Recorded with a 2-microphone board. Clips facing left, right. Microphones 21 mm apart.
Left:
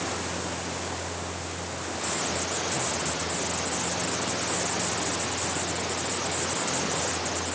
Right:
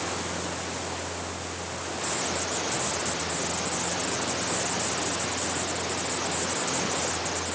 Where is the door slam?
No door slam in this recording.